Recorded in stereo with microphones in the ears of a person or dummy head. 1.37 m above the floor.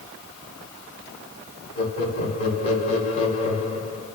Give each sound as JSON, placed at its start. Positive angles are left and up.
{"t": 1.8, "sound": "laughter", "side_deg": 35, "distance_m": 3.0}